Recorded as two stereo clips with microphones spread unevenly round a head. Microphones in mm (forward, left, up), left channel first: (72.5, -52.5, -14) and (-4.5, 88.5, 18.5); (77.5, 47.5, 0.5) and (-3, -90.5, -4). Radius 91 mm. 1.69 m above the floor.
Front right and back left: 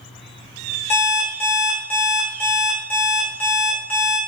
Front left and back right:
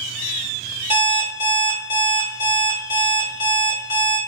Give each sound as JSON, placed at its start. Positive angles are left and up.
{"t": 0.9, "sound": "an alarm clock", "azimuth_deg": 25, "distance_m": 1.1}